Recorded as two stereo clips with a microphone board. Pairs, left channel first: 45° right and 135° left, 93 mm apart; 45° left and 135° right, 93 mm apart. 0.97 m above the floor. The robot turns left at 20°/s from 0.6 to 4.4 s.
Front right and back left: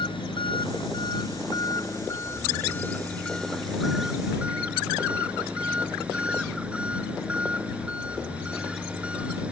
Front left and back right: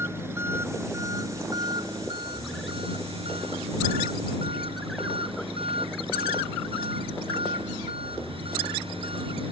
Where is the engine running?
70° right; by 9.5 s 145° right.